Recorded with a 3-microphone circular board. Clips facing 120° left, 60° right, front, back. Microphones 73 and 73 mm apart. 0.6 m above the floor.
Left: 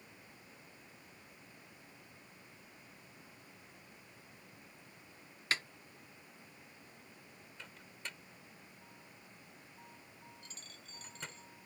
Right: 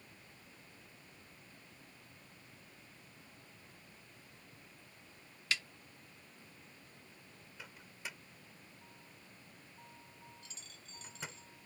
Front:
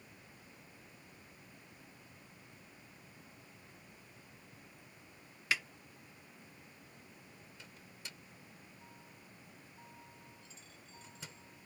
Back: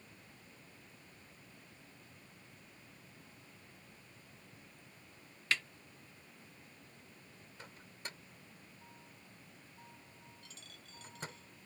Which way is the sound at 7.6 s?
140° right.